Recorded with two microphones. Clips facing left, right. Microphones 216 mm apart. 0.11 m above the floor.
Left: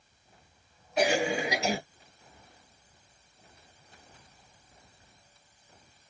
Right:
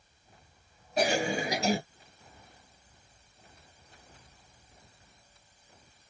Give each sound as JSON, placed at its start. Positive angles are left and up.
{"t": 1.0, "sound": "a cough", "side_deg": -35, "distance_m": 2.0}